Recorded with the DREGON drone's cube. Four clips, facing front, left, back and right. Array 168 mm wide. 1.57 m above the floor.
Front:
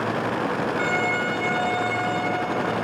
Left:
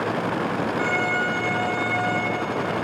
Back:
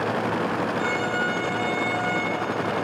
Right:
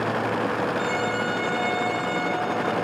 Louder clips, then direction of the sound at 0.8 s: Left 1 dB, front 1 dB; 5° left.